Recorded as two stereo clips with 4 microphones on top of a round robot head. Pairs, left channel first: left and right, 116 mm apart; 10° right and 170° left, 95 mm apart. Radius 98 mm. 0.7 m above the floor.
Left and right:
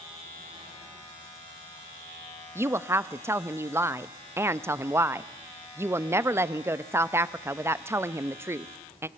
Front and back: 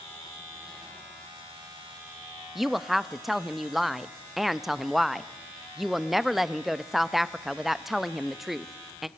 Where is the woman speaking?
105° right, 0.6 m.